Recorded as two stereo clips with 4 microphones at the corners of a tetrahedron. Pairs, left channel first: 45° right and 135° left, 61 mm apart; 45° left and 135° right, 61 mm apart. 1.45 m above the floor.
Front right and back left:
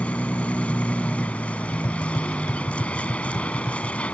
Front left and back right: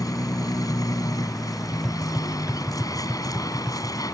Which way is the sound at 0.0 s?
25° left.